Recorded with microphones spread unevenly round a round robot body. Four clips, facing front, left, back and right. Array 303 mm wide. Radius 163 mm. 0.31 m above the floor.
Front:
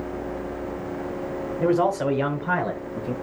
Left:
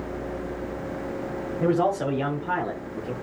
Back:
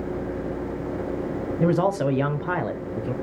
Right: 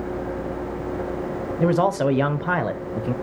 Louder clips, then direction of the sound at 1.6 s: Right 3 dB, front 1 dB; 145° right.